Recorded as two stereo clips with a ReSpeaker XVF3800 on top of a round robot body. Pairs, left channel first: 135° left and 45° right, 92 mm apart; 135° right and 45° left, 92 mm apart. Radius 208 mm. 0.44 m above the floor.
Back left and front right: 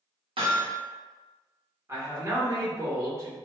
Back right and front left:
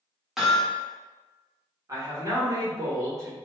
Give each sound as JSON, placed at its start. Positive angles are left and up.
{"t": 0.4, "sound": "hammering", "azimuth_deg": -40, "distance_m": 1.4}
{"t": 1.9, "sound": "a man speaking", "azimuth_deg": 5, "distance_m": 2.0}